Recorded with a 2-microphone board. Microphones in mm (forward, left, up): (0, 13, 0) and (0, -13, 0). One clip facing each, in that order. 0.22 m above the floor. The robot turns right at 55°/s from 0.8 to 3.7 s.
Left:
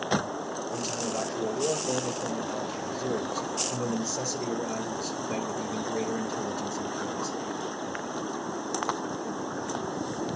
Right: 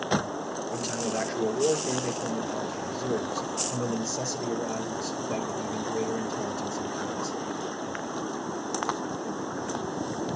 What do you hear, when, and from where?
0.7 s a man speaking: 120° right, 3.5 m; by 8.3 s 40° left, 3.5 m